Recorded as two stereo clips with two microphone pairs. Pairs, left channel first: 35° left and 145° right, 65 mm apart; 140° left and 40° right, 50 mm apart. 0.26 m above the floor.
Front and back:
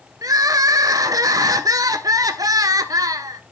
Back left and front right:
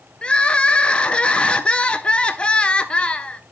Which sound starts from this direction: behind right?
Crying, at 0.2 s.